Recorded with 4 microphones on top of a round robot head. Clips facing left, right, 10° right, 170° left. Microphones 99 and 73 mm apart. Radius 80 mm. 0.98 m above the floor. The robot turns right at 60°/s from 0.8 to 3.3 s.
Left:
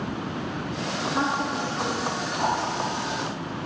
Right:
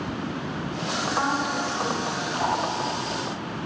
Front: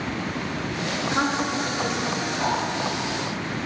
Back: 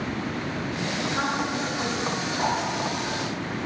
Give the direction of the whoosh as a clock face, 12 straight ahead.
8 o'clock.